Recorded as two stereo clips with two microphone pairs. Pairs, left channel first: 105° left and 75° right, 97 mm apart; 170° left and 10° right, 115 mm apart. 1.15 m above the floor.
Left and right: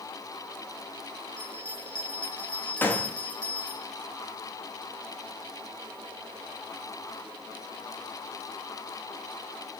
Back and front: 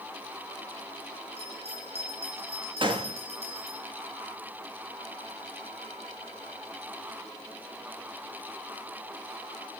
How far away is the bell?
About 5.5 m.